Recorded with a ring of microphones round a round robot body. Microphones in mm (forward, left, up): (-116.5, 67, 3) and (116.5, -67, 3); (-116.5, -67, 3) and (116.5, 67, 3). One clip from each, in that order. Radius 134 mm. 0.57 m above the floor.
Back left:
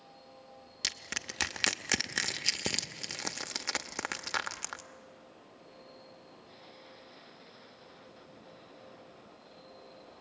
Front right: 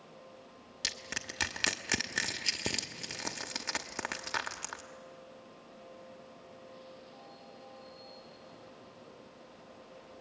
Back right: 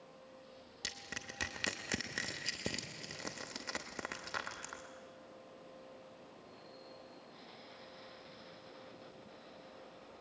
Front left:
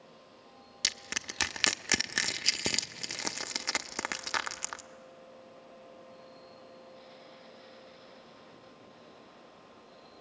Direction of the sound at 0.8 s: 75° left.